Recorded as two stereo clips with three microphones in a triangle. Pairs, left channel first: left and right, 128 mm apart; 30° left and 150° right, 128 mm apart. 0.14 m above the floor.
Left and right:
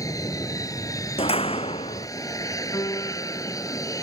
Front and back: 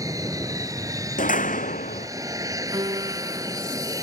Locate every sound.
0.0 s an aircraft: 150° left
1.2 s a door slam: 45° left
2.7 s a piano: 155° left